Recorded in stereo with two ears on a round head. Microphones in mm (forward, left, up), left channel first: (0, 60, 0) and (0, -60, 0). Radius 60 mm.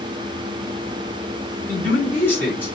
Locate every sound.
1.7 s a man speaking: 15° left (ahead or behind), 3 m